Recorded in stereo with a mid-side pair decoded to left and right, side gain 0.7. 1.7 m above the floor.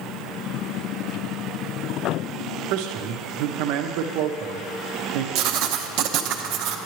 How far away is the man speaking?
About 0.7 m.